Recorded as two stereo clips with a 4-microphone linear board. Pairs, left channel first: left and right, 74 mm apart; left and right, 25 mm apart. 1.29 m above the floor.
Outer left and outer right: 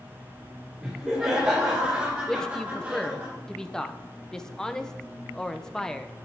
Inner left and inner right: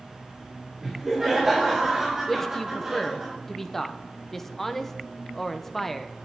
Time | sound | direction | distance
0.8 | laughter | 5° right (ahead or behind) | 4 m
2.3 | a man speaking | 10° left (ahead or behind) | 0.7 m